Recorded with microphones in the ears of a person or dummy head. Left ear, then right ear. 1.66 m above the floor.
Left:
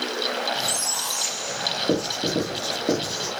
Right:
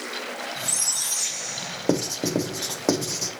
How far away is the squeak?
About 1.3 m.